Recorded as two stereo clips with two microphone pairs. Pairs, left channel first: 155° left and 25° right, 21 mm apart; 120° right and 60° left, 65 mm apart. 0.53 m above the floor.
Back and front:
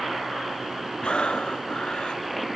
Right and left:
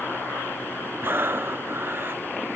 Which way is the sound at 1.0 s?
115° left.